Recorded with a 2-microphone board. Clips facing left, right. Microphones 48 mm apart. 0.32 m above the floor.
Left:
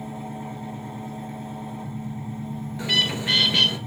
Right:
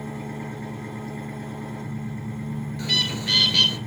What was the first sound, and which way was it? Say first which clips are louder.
An engine running: right 1 dB; 65° right (ahead or behind).